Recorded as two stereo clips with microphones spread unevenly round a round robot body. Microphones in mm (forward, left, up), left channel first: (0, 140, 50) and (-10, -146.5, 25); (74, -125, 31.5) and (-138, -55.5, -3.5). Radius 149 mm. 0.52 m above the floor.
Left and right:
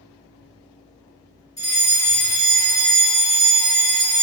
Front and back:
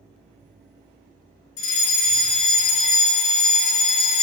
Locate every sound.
1.6 s a fire alarm: 10° left, 3 m